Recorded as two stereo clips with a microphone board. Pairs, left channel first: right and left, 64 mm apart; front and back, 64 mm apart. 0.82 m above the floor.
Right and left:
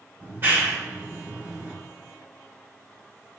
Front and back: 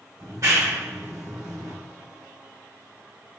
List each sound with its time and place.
0.2 s a clap: 145° left, 1.6 m